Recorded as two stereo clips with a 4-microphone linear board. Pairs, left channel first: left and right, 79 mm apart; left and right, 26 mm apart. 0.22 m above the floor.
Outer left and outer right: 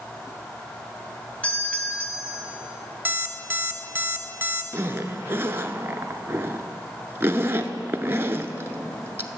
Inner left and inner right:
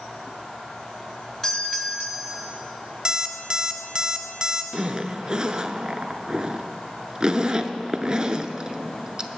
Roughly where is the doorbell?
Centre.